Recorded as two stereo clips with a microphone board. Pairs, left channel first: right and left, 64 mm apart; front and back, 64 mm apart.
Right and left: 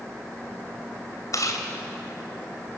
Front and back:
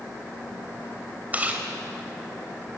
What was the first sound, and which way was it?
Chewing, 115° right.